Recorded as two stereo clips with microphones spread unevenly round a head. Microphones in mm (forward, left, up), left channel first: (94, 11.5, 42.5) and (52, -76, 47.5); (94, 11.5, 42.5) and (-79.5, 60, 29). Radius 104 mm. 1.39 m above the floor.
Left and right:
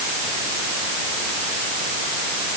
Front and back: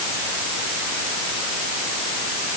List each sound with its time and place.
Only background noise.